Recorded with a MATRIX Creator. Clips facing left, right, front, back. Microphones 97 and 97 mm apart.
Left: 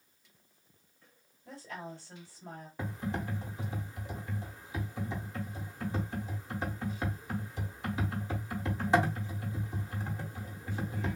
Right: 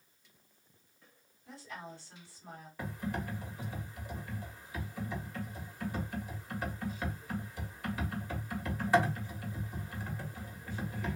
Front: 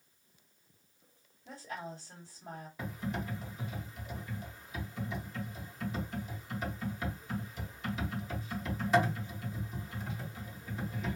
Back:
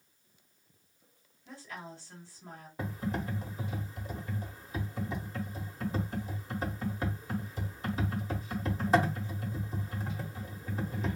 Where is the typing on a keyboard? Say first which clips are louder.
Left 1 dB, back 3 dB; 150° left, 1.1 m.